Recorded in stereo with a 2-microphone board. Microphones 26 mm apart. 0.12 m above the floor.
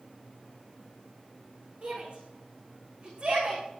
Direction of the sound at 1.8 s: 45° right (ahead or behind).